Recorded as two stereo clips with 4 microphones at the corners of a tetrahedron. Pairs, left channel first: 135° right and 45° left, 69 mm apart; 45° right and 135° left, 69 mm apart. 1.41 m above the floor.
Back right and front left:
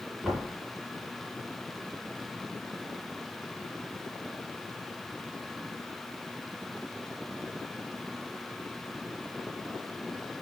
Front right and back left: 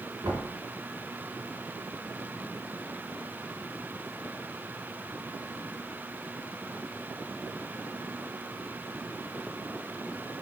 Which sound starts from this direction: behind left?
Knocking, at 0.2 s.